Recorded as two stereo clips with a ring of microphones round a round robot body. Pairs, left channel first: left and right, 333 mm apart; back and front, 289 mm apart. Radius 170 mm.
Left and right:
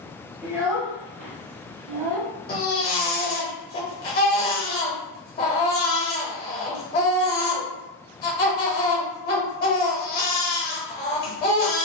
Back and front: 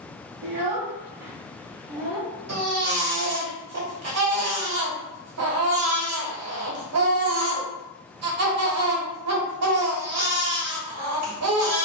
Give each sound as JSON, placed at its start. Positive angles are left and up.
{"t": 0.4, "sound": "a child speaking", "azimuth_deg": 0, "distance_m": 0.7}
{"t": 2.5, "sound": "a baby crying", "azimuth_deg": 30, "distance_m": 1.2}